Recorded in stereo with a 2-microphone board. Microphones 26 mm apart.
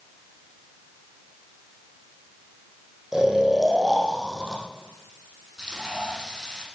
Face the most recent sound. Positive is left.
turn(degrees=-15)  # may be behind; listen again after turning